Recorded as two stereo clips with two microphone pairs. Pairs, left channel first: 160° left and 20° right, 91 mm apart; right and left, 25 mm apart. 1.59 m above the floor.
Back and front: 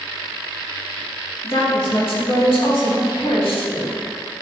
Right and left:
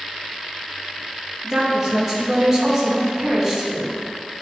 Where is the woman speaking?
165° left, 1.8 m.